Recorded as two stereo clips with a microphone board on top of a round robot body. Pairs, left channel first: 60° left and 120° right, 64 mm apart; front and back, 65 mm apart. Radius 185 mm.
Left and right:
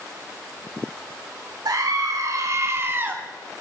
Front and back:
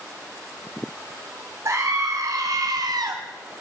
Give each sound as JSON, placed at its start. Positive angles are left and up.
{"t": 1.6, "sound": "a scream", "azimuth_deg": -140, "distance_m": 3.0}